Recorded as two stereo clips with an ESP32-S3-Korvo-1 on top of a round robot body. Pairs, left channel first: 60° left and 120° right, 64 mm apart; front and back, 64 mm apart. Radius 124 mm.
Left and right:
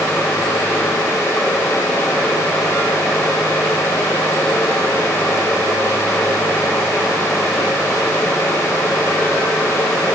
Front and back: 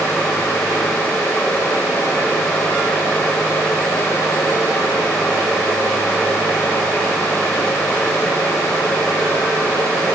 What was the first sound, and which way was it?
Only background noise.